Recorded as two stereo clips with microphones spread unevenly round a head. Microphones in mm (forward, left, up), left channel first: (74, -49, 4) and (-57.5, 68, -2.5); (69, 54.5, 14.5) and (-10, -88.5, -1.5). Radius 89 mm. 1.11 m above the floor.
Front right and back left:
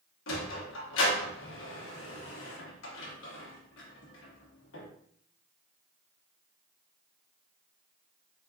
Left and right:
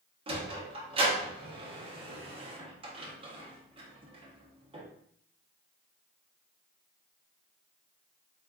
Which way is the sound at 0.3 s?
60° right.